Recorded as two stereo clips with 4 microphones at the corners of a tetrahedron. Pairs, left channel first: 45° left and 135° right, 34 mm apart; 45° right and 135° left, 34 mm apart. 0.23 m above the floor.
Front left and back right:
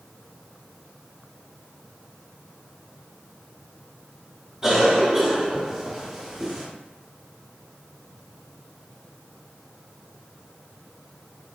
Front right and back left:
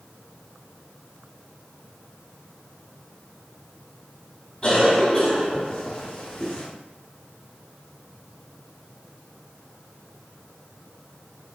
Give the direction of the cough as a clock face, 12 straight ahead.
3 o'clock.